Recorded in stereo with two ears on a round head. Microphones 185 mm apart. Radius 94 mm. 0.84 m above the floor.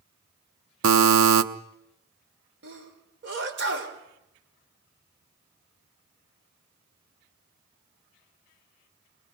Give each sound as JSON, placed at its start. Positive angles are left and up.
{"t": 0.8, "sound": "a buzzer", "side_deg": -75, "distance_m": 0.9}
{"t": 2.6, "sound": "a sneeze", "side_deg": -60, "distance_m": 3.5}